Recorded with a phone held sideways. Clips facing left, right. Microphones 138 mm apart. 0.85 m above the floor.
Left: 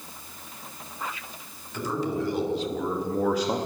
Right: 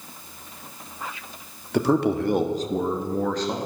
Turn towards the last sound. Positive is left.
turn(degrees=25)  # may be behind; listen again after turning